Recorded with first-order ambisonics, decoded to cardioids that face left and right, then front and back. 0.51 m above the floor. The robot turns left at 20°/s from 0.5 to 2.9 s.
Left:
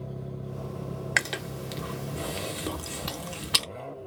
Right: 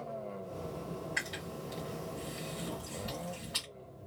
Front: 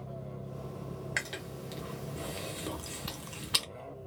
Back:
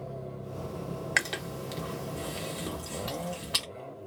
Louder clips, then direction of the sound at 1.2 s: Left 12 dB, back 7 dB; 115° left.